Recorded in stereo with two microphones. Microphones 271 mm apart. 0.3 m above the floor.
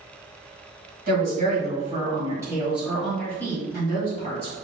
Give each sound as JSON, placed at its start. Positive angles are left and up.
{"t": 1.1, "sound": "a woman speaking", "side_deg": -35, "distance_m": 1.9}